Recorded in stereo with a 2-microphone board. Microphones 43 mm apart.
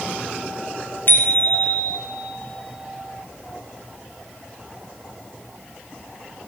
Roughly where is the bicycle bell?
Left.